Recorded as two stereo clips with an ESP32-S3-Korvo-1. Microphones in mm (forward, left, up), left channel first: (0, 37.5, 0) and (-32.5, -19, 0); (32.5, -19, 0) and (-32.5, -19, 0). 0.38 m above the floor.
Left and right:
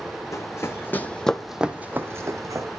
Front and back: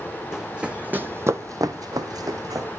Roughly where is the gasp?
I don't hear a gasp.